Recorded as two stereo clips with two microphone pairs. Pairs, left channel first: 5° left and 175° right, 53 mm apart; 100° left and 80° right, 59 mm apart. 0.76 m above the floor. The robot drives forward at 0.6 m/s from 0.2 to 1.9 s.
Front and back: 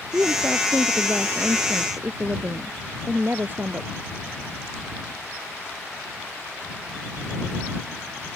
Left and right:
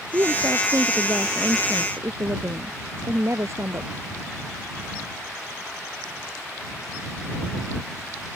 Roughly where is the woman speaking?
Behind right.